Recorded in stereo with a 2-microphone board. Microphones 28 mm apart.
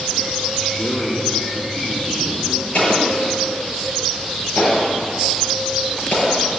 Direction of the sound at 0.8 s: 15° left (ahead or behind).